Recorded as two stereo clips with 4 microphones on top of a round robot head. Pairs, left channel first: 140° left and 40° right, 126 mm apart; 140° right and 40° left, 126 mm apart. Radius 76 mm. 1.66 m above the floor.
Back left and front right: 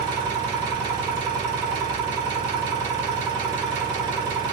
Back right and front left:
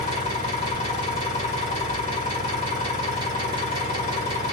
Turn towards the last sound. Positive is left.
turn(degrees=-100)